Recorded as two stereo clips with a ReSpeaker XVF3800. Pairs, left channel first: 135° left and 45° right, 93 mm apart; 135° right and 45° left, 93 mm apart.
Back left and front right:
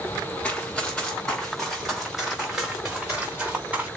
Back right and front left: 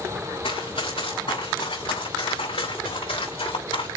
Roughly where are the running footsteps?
Behind right.